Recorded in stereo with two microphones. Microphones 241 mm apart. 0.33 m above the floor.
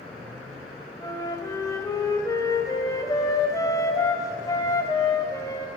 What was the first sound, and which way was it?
A flute, 15° left (ahead or behind).